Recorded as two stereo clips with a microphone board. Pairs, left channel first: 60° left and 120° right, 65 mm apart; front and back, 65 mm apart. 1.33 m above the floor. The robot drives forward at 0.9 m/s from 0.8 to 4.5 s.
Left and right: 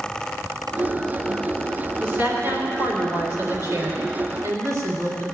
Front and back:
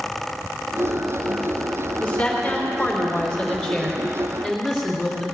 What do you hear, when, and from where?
2.0 s a woman speaking: 65° right, 5 m; by 5.2 s 90° right, 4.5 m